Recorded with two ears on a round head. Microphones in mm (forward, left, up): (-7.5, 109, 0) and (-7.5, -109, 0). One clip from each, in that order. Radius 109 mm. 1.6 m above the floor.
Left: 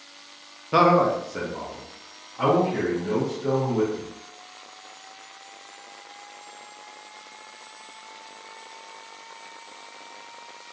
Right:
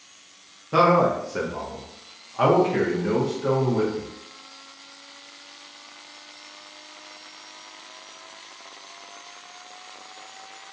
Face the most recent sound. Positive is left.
turn(degrees=-65)  # may be behind; listen again after turning